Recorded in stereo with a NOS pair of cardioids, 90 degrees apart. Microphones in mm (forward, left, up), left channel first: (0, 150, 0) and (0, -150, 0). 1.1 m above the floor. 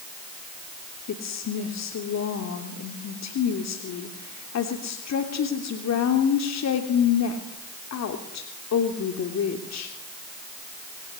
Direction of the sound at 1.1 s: 60° left.